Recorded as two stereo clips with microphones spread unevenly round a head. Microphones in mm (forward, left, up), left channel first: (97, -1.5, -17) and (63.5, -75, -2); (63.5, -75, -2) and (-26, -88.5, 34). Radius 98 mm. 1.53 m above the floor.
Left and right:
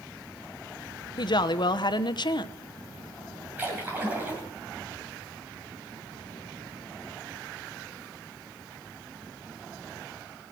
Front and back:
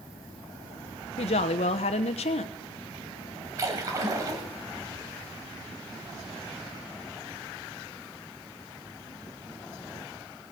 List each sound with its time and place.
1.2 s a woman speaking: 40° left, 0.9 m
3.6 s a splash: 175° right, 2 m